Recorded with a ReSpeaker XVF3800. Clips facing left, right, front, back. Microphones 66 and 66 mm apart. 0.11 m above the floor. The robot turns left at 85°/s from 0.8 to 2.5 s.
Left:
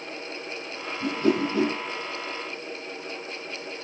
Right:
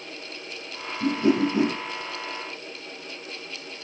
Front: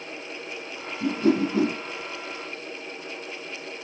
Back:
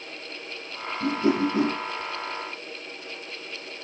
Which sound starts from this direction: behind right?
A whoosh, at 1.0 s.